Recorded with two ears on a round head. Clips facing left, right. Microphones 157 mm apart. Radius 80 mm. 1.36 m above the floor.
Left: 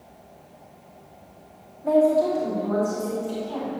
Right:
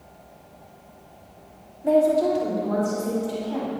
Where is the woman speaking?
10° right (ahead or behind), 2.5 m; by 3.7 s 5° right (ahead or behind), 4.5 m.